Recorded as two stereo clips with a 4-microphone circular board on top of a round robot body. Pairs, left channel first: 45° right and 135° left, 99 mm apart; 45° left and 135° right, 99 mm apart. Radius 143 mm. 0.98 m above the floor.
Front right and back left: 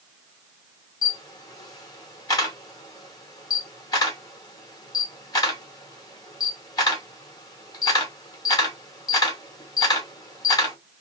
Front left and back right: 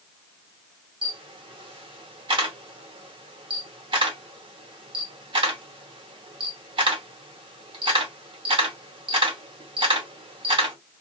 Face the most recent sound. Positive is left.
turn(degrees=-100)